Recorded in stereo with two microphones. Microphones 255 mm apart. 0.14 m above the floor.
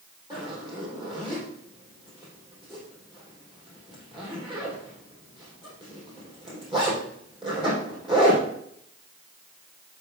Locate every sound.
0.3 s a zipper: 20° right (ahead or behind), 4 m